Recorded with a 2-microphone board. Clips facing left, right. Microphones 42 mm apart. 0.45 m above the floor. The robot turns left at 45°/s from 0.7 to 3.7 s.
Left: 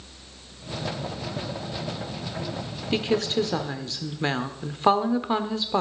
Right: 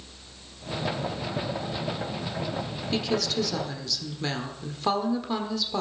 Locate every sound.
2.9 s a woman speaking: 110° left, 1.3 m; by 5.8 s 75° left, 1.3 m